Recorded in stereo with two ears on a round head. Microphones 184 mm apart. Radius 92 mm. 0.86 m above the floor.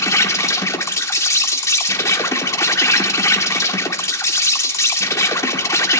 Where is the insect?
15° left (ahead or behind), 1.2 m.